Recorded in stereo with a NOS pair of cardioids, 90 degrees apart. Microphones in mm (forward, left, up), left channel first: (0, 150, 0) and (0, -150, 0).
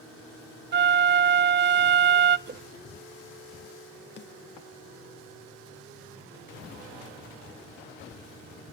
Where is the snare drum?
40° left, 2 m.